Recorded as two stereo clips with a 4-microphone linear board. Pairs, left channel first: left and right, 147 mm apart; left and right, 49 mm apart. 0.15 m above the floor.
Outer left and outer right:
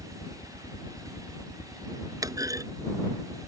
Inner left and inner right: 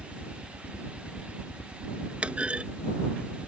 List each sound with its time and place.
0.0 s a helicopter: 35° left (ahead or behind); by 3.5 s 30° left (ahead or behind)
2.2 s a clunk: 25° right (ahead or behind)